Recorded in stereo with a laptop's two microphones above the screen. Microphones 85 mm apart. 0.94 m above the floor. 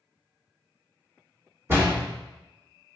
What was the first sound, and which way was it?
A door slam, 30° right (ahead or behind).